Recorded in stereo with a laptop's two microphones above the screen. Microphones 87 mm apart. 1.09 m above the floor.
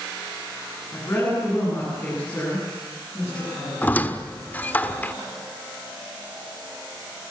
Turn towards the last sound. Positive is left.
turn(degrees=20)  # may be behind; listen again after turning